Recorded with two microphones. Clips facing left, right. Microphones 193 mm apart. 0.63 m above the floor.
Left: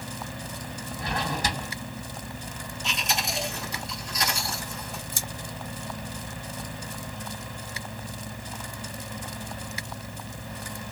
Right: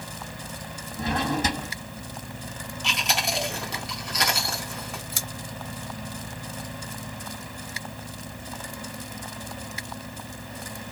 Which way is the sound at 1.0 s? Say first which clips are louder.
Right 5 dB; 20° right (ahead or behind).